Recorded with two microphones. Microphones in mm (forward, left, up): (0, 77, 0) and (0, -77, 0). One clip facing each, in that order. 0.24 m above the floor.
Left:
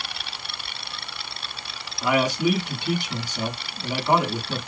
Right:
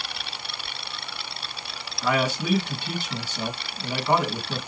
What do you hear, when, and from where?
2.0 s a man speaking: 15° left (ahead or behind), 3 m